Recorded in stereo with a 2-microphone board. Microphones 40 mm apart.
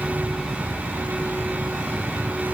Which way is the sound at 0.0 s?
30° right (ahead or behind).